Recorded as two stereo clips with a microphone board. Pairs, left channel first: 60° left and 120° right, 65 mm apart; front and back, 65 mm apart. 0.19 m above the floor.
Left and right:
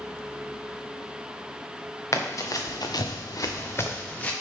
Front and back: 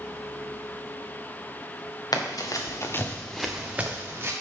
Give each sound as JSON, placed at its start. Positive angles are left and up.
{"t": 2.1, "sound": "running footsteps", "azimuth_deg": 15, "distance_m": 1.5}